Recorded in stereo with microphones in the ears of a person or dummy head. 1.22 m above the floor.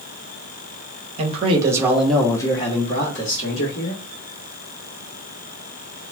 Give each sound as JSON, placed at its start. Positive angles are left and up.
{"t": 1.2, "sound": "a man speaking", "side_deg": -35, "distance_m": 0.8}